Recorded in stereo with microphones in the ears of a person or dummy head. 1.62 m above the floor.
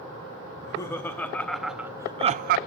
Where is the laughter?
25° left (ahead or behind), 1.8 m; by 2.6 s 50° right (ahead or behind), 0.6 m.